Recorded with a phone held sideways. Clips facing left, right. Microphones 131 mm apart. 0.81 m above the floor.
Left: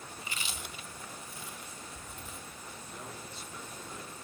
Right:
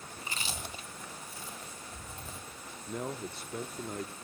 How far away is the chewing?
About 0.9 m.